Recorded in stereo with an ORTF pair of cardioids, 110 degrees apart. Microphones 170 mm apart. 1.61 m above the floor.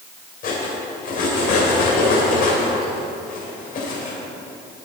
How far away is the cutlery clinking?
About 4 m.